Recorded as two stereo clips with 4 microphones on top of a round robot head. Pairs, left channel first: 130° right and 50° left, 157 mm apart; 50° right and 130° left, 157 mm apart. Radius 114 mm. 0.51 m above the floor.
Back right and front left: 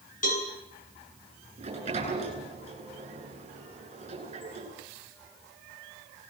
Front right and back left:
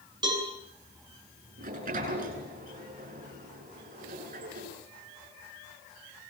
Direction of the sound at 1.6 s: 100° left.